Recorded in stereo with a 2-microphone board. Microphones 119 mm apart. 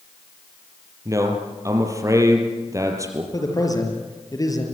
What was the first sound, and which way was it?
A man speaking, 25° right (ahead or behind).